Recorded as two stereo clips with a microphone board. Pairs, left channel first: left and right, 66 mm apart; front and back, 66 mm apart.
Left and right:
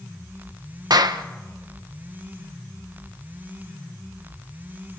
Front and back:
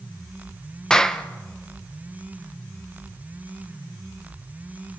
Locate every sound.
0.9 s a clap: 80° right, 0.9 m